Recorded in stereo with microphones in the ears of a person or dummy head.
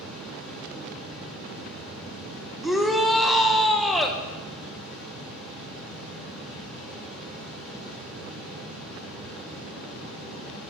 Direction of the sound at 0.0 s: 5° right (ahead or behind).